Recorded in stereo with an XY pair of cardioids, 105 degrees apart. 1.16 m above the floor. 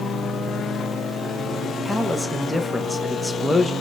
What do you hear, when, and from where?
1.9 s a man speaking: 5° left, 0.8 m